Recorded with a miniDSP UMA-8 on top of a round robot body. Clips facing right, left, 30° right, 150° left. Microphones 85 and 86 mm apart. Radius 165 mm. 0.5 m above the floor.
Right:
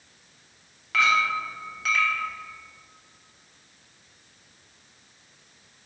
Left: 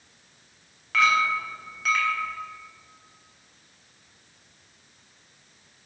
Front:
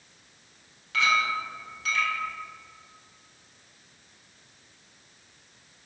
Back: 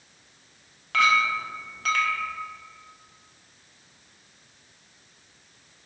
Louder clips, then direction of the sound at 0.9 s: Left 1 dB, back 3 dB; straight behind.